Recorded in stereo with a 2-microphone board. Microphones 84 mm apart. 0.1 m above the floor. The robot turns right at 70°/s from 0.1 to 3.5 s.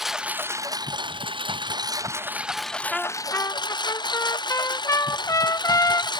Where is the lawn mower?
175° right; by 6.2 s 60° left.